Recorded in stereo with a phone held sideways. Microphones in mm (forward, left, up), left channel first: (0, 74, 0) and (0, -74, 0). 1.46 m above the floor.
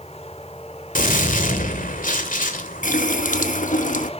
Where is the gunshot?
65° left (ahead or behind), 2 m.